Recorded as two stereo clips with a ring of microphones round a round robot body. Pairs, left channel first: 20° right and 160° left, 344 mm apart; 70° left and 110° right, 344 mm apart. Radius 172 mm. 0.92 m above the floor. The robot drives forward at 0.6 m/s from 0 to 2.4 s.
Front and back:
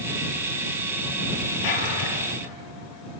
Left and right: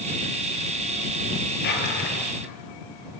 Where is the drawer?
5° left, 6.5 m.